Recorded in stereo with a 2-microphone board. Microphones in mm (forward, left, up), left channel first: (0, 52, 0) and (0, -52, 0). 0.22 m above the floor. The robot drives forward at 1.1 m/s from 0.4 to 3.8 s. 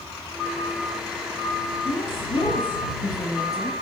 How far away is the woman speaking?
About 2 m.